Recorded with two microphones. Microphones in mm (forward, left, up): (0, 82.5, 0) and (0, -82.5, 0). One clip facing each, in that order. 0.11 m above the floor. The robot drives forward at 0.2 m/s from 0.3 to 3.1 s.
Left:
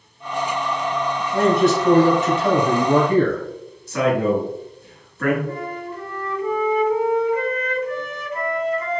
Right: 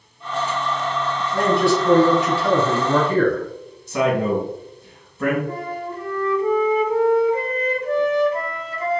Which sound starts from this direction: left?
A man speaking, at 1.3 s.